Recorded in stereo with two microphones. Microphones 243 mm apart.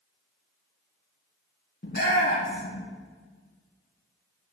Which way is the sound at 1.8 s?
45° left (ahead or behind).